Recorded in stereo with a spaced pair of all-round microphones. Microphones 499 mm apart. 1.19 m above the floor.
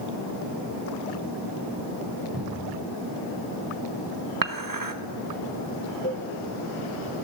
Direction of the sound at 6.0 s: 20° left (ahead or behind).